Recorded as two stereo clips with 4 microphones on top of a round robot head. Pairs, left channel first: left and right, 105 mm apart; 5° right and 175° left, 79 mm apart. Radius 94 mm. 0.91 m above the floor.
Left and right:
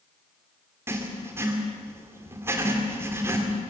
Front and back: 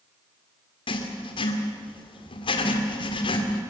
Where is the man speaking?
I don't hear a man speaking.